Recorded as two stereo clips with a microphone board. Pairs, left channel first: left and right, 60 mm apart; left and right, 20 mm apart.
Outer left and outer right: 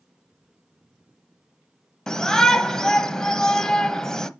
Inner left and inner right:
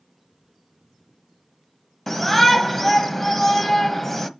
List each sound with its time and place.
2.1 s a shout: 10° left (ahead or behind), 1.2 m